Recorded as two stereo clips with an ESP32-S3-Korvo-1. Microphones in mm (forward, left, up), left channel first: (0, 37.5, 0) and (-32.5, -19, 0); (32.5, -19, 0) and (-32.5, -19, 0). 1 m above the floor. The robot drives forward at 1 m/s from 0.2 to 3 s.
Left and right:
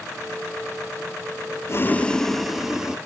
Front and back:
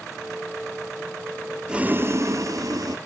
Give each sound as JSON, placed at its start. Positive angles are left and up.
{"t": 1.7, "sound": "boiling", "azimuth_deg": 105, "distance_m": 0.5}